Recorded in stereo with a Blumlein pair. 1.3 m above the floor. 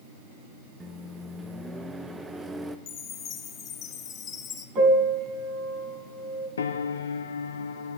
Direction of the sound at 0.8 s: 10° right.